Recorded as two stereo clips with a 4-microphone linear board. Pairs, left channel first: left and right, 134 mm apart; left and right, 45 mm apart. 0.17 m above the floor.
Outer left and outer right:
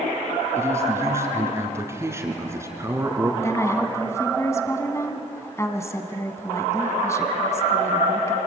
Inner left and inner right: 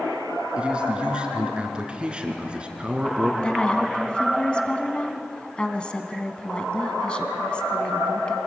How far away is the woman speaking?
About 1.6 m.